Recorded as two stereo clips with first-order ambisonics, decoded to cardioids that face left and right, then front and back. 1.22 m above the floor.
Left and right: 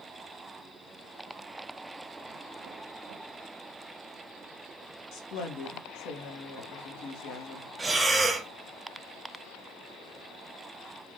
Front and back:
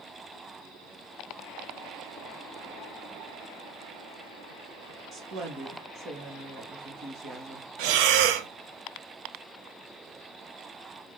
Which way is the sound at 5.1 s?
125° left.